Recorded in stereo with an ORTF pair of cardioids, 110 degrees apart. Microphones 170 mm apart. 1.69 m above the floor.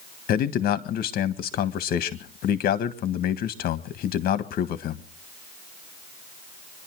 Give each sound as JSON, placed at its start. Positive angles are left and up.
{"t": 0.3, "sound": "a man speaking", "azimuth_deg": 65, "distance_m": 1.6}